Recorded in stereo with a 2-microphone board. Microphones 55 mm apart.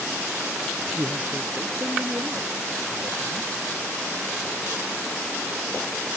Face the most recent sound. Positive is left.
turn(degrees=-55)  # may be behind; listen again after turning